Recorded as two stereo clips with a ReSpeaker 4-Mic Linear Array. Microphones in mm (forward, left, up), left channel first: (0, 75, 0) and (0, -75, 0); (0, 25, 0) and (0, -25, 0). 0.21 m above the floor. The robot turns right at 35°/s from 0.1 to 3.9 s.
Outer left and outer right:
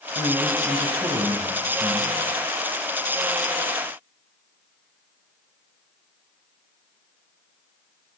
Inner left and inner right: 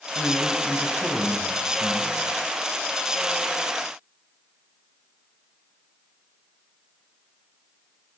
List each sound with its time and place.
0.1 s a man speaking: 25° right (ahead or behind), 1.0 m; by 2.2 s 15° right (ahead or behind), 1.0 m